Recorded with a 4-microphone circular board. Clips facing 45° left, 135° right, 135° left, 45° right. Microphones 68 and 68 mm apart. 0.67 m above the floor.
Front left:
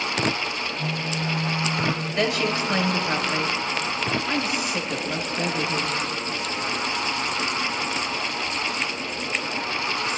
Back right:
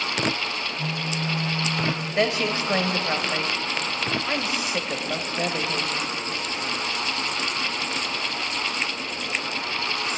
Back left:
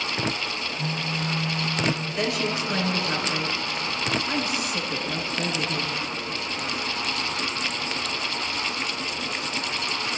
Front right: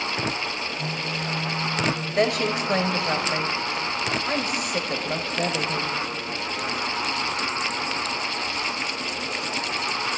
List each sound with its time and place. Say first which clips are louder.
0.8 s a phone buzzing: front left 1 dB, even; 160° right, 6 m
2.2 s a woman speaking: back right 1 dB, front right 4 dB; 70° right, 2.5 m